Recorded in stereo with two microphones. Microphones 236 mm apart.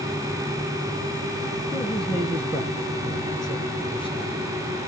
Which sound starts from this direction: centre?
A man speaking, at 1.7 s.